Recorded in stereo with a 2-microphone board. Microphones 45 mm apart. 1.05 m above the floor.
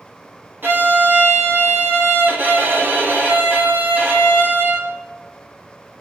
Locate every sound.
0.6 s a violin: 55° right (ahead or behind), 1.7 m